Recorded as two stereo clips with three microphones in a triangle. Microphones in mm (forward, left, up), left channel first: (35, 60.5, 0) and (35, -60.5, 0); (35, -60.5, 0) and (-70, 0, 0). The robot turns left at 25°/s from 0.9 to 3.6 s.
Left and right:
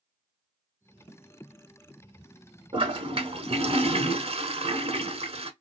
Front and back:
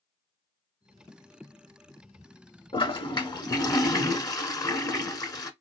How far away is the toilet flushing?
About 0.7 m.